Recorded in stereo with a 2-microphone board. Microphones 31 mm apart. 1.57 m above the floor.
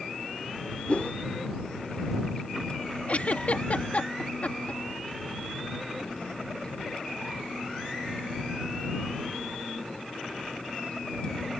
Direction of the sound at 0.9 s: 50° left (ahead or behind).